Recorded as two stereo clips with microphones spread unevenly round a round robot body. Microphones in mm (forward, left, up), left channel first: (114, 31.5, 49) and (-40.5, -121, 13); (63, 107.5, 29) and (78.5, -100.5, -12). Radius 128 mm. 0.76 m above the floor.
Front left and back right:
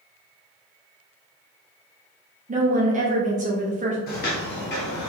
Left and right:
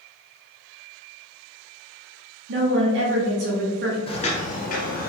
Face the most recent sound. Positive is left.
turn(degrees=75)